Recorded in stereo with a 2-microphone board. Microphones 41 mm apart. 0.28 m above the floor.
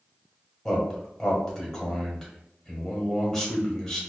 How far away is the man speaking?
About 1.1 m.